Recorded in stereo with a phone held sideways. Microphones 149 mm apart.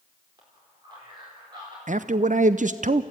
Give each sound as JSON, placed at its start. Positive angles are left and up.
{"t": 0.4, "sound": "a man speaking", "side_deg": -30, "distance_m": 4.5}
{"t": 1.9, "sound": "a man speaking", "side_deg": -65, "distance_m": 0.6}